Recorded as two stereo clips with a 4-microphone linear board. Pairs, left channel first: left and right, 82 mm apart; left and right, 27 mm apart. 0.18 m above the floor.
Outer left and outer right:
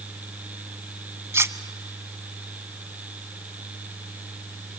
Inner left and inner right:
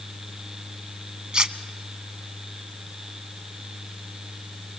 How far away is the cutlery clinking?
About 0.8 m.